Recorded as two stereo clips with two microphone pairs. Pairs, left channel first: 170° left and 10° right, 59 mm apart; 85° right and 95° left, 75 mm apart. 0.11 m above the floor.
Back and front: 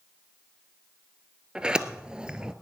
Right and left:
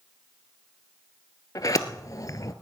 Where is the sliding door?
80° right, 0.6 m.